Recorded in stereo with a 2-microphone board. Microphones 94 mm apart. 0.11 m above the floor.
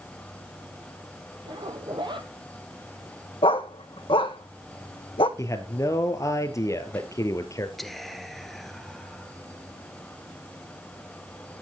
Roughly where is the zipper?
Right.